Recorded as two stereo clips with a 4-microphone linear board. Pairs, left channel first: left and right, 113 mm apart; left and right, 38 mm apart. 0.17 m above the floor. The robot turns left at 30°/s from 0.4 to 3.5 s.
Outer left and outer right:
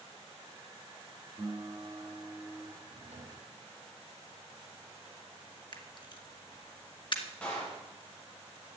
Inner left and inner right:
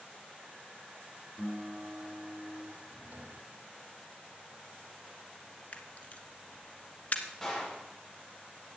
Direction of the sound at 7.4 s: 10° left (ahead or behind).